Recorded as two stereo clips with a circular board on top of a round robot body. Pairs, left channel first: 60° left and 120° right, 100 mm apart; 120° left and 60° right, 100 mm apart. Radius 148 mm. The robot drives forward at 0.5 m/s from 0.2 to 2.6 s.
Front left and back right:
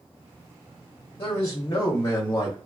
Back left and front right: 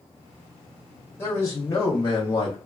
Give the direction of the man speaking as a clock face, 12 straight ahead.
10 o'clock.